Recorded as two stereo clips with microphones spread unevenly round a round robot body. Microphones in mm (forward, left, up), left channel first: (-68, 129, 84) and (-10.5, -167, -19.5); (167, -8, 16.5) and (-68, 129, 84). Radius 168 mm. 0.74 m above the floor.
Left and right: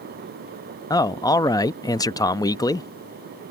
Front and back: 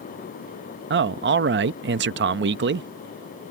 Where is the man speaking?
160° right.